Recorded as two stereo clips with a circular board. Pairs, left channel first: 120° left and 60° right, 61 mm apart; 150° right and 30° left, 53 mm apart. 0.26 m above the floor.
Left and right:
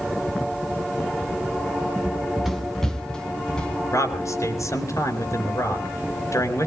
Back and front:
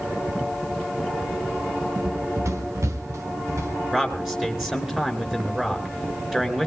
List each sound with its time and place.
2.0 s running footsteps: 5° left, 0.9 m; by 3.8 s 45° left, 2.5 m
3.9 s a man speaking: 110° left, 3.5 m